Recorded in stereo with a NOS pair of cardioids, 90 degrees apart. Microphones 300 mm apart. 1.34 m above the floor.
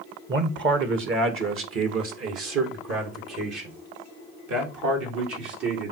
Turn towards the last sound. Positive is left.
turn(degrees=-65)